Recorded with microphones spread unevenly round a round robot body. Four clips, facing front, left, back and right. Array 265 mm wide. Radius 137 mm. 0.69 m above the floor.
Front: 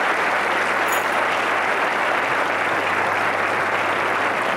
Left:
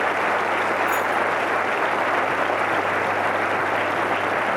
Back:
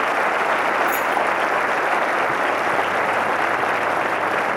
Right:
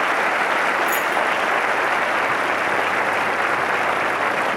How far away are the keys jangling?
About 6.5 m.